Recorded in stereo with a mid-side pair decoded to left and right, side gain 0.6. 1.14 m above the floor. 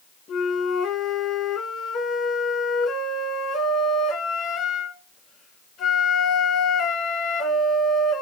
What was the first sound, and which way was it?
A flute, 45° left.